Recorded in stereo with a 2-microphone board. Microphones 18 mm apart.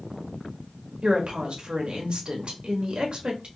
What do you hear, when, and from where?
1.0 s a woman speaking: 65° right (ahead or behind), 1.2 m